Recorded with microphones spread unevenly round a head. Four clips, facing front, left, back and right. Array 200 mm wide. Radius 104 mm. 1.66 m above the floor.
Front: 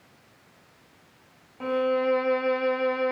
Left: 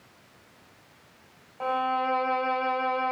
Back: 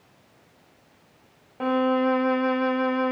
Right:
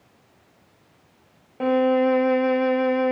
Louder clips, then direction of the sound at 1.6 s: Right 8 dB, back 2 dB; 110° right.